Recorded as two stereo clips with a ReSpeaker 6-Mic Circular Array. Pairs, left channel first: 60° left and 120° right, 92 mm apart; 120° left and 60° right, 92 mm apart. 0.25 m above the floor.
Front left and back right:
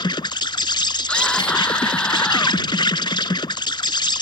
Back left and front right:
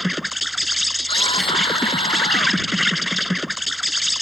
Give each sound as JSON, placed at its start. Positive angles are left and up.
{"t": 0.0, "sound": "an insect", "azimuth_deg": 30}
{"t": 1.1, "sound": "a scream", "azimuth_deg": 140}